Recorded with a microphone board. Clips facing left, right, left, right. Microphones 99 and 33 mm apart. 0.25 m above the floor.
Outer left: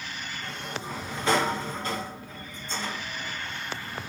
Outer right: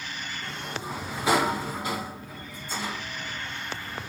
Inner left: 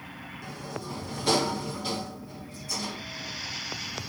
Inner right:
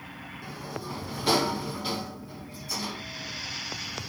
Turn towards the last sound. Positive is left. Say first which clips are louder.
# outer right 1 dB, even
turn(degrees=-10)  # may be behind; listen again after turning